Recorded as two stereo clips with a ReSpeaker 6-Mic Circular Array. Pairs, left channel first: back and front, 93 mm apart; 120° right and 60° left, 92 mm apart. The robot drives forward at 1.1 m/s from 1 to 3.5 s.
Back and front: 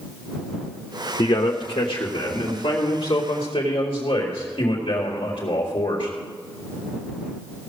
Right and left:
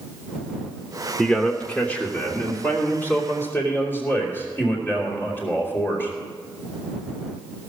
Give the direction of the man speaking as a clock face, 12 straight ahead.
7 o'clock.